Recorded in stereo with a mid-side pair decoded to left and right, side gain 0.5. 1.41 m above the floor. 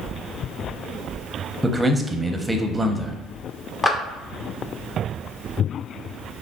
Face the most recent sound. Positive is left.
turn(degrees=20)